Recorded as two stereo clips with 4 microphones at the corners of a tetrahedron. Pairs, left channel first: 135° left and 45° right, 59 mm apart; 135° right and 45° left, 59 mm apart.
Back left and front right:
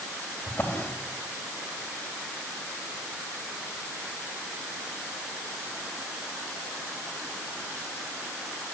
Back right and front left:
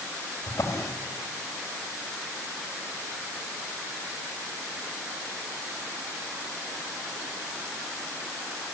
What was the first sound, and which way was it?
A drawer, 175° right.